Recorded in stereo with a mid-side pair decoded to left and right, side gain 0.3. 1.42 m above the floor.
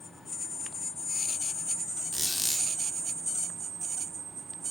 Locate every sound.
2.1 s a squeak: 25° left, 2 m